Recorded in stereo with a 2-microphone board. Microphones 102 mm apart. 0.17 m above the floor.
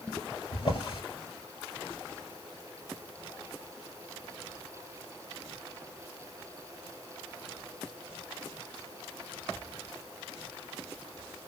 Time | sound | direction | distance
0.5 | a drawer | 45° left (ahead or behind) | 1.9 m